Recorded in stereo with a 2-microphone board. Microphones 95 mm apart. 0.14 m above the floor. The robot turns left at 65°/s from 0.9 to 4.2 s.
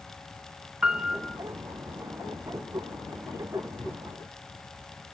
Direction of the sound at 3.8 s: 75° right (ahead or behind).